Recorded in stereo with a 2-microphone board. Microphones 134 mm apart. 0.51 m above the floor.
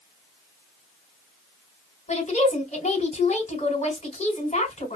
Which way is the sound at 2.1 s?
60° left (ahead or behind).